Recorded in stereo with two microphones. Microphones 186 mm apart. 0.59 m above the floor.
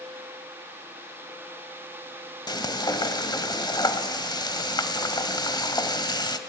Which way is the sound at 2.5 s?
20° left (ahead or behind).